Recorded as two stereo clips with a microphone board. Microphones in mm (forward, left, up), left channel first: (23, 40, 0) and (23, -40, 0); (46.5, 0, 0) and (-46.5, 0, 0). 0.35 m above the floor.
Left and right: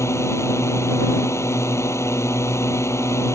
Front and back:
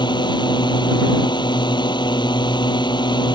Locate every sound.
0.0 s a drone: 35° left